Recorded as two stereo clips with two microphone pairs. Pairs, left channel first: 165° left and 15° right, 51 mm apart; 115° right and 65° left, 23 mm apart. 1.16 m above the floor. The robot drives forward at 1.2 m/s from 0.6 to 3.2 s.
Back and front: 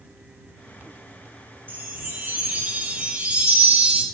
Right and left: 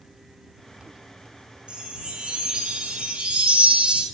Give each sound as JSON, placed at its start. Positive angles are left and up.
{"t": 1.7, "sound": "a chime", "azimuth_deg": 35, "distance_m": 4.5}